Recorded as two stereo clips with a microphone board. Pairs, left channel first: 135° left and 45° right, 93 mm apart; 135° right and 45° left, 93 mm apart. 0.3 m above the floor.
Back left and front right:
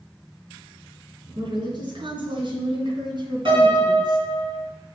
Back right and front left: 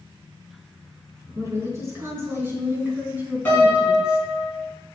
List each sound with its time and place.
1.4 s a woman speaking: 15° right, 3.5 m; by 4.2 s 30° right, 2 m
3.5 s a piano: 65° right, 3.5 m